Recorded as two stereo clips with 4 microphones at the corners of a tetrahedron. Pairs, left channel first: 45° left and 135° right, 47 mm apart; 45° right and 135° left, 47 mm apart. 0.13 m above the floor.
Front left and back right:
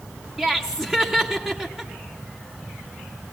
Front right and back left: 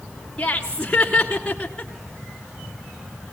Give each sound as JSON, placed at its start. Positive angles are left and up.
{"t": 0.4, "sound": "laughter", "azimuth_deg": -75, "distance_m": 1.4}